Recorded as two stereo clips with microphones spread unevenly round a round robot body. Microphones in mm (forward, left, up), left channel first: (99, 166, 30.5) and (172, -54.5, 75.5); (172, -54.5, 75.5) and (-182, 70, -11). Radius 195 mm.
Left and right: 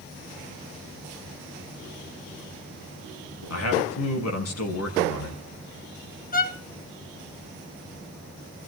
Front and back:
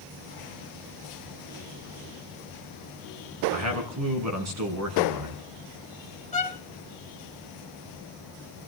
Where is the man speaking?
115° left, 5 m.